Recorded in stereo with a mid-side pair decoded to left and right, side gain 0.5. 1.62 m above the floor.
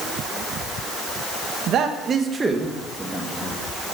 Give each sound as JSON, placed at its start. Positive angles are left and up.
{"t": 1.7, "sound": "a man speaking", "azimuth_deg": -65, "distance_m": 1.7}